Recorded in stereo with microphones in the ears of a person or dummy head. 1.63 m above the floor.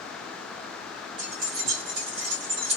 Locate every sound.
1.2 s keys jangling: 65° right (ahead or behind), 2.5 m